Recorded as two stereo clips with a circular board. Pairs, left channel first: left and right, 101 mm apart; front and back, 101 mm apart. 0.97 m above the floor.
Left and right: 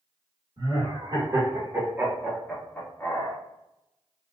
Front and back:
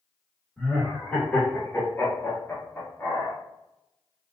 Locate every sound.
0.6 s laughter: 75° right, 1.3 m; by 3.4 s 50° left, 1.0 m